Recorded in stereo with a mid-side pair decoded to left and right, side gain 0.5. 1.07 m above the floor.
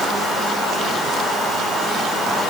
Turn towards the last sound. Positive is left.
No sound to turn to.